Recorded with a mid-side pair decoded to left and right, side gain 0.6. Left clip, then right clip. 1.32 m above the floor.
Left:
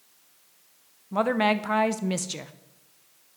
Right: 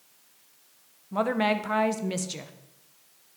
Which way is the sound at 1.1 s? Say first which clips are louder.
Left 2 dB; 15° left.